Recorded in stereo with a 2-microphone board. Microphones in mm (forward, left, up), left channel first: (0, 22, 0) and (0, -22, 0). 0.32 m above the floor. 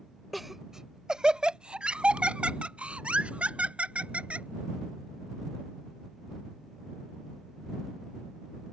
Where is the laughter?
Centre (ahead or behind); by 4.5 s 30° right (ahead or behind).